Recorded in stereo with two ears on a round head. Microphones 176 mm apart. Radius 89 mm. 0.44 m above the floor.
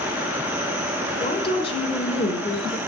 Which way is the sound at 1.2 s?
25° left (ahead or behind).